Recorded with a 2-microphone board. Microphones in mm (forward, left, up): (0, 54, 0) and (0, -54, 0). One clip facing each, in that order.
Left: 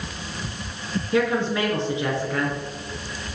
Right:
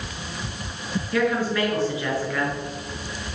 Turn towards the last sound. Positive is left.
turn(degrees=20)  # may be behind; listen again after turning